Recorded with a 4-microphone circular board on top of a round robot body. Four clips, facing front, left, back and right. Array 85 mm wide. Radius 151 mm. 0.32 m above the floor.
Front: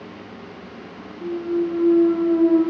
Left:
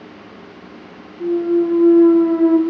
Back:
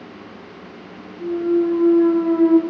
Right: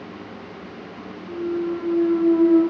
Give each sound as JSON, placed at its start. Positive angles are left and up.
{"t": 1.2, "sound": "a clunk", "azimuth_deg": 130, "distance_m": 0.6}